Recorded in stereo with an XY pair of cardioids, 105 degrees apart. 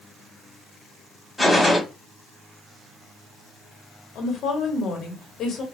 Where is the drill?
I don't hear a drill.